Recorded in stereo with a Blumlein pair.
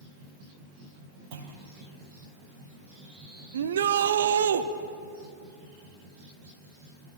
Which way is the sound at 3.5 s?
65° right.